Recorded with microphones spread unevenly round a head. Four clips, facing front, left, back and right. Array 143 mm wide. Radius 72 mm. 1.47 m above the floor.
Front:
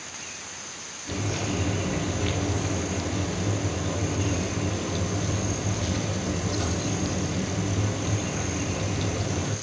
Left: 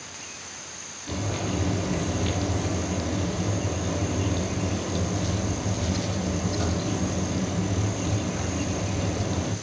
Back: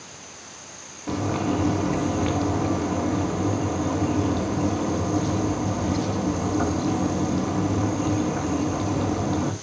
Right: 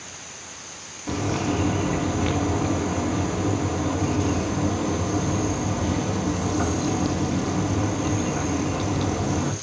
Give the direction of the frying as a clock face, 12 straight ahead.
5 o'clock.